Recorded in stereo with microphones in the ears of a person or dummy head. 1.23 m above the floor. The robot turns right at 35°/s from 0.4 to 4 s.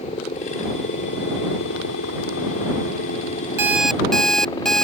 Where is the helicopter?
35° left; by 4.8 s 160° left.